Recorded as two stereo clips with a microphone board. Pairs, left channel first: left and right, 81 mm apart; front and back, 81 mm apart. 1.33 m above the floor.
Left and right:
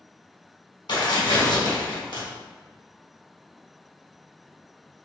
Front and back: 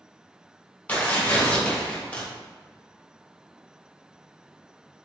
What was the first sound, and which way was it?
Tearing paper, 70° left.